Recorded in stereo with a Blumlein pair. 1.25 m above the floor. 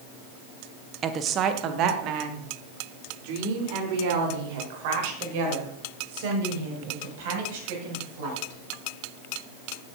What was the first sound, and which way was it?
A woman speaking, 25° right.